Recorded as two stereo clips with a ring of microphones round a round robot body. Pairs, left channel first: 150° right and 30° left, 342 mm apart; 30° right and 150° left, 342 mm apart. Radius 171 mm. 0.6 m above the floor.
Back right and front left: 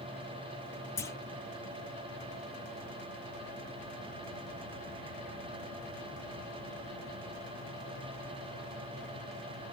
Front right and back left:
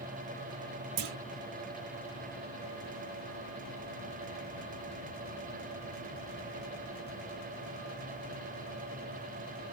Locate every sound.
1.0 s a clunk: 130° left, 0.7 m